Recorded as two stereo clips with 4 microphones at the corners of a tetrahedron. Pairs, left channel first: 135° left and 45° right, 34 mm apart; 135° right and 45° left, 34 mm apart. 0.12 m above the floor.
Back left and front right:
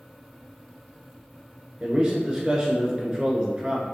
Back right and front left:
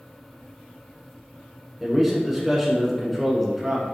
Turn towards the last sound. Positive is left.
turn(degrees=-40)